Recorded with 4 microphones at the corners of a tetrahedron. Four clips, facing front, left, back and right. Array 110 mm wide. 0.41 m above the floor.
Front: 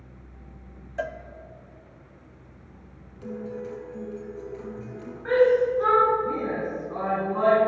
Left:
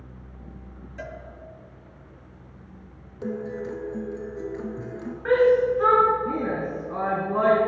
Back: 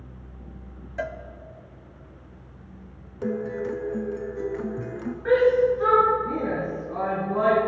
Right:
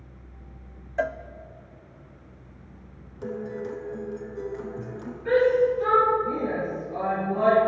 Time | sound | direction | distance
1.0 | a cowbell | 85° right | 0.6 m
3.2 | a guitar | 165° left | 1.1 m
5.2 | a shout | 90° left | 4.5 m